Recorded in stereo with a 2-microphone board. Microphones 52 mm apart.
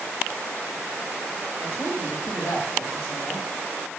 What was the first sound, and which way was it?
A woman speaking, 50° left (ahead or behind).